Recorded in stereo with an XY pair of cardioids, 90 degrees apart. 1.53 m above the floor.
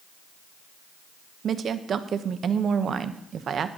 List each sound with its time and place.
1.4 s a woman speaking: 60° right, 1.0 m